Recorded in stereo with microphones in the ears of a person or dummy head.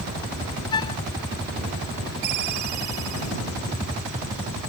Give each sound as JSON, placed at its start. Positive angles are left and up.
{"t": 0.7, "sound": "a flute", "side_deg": 30}
{"t": 2.2, "sound": "a ringtone", "side_deg": -55}